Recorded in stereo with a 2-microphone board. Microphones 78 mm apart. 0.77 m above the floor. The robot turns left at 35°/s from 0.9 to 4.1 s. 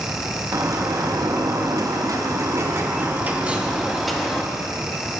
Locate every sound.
0.5 s a bird: 65° right, 0.7 m; by 4.4 s straight behind, 0.7 m